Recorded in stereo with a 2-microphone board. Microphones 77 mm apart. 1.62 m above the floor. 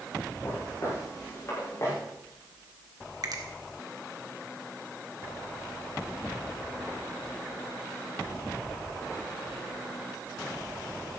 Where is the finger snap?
55° right (ahead or behind), 1.5 m.